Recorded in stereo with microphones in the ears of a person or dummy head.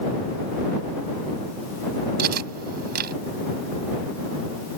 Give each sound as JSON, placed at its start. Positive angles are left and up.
{"t": 2.2, "sound": "cutlery clinking", "side_deg": -45}